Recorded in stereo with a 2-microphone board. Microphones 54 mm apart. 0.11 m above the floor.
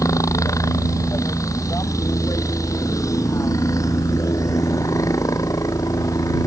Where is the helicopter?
70° left (ahead or behind).